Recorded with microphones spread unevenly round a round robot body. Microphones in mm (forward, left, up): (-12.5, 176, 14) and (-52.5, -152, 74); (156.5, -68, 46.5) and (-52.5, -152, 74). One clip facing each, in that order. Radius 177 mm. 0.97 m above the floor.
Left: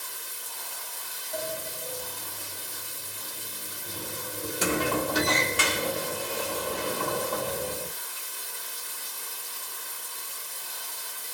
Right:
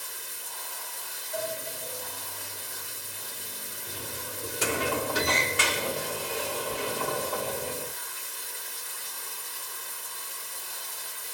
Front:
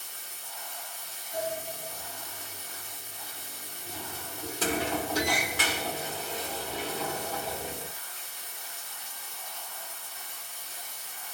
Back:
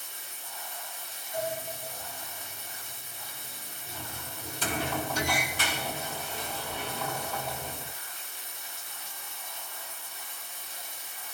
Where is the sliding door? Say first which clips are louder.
Even, even; 70° left, 1.4 m.